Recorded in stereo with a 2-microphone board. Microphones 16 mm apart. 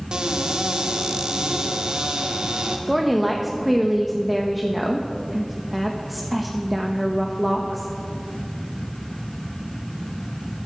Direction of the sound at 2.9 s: Centre (ahead or behind).